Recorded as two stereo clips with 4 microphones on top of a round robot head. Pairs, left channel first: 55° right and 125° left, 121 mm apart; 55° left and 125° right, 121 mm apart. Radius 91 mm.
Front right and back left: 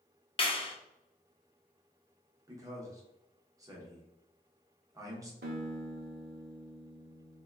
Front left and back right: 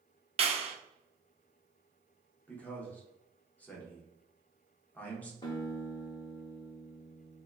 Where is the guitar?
115° left, 0.6 m.